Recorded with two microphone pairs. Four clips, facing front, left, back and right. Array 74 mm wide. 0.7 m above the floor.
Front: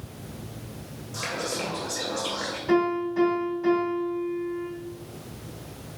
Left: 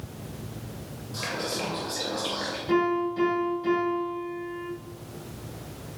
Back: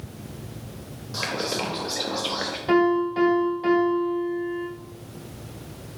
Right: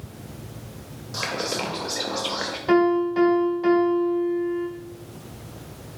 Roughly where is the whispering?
Behind right.